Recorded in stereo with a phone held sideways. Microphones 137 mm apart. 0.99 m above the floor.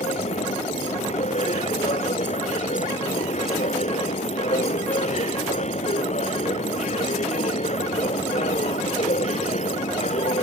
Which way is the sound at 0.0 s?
55° left (ahead or behind).